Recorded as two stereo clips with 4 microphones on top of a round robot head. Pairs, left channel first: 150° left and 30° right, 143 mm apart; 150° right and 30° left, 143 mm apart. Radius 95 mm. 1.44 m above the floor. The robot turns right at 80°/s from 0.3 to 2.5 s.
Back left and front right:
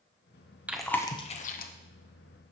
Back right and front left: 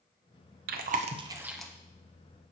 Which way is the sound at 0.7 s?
50° left.